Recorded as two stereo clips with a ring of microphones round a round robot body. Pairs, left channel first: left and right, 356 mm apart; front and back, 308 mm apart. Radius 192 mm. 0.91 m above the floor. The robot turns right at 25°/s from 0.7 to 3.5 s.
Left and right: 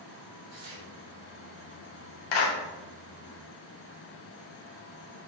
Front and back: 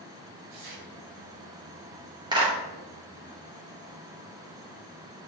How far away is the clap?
About 2.5 m.